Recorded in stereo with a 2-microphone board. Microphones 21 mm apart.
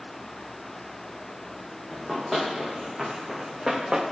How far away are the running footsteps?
About 3.5 m.